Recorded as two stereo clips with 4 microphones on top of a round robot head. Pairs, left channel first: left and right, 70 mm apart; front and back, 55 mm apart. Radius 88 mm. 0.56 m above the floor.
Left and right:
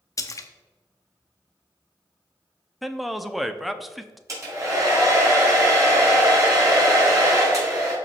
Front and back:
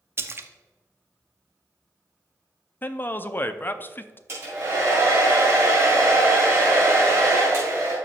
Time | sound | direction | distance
0.2 | a splash | 135° left | 0.8 m
2.8 | a man speaking | straight ahead | 0.6 m
4.3 | a hair dryer | 130° right | 3.5 m